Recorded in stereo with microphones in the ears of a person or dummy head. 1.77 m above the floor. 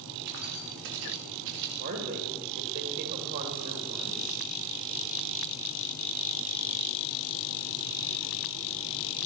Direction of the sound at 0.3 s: 50° right (ahead or behind).